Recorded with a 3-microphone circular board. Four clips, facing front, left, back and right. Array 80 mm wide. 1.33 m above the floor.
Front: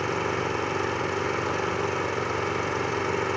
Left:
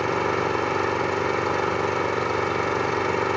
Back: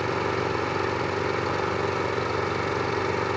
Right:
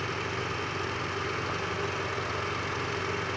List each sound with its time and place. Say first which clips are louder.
0.0 s an engine running: left 10 dB, back 1 dB; 90° left